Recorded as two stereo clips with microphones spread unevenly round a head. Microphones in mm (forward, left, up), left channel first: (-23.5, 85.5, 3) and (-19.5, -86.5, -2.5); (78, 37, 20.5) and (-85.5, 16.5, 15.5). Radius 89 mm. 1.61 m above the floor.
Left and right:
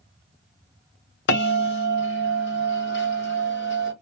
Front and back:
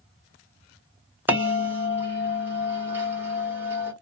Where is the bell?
105° left, 1.0 m.